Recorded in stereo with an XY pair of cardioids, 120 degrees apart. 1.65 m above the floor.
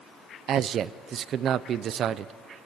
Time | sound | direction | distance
0.5 | a man speaking | 55° right | 0.8 m